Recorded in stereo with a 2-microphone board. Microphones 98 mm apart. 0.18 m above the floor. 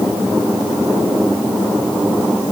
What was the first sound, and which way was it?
Only background noise.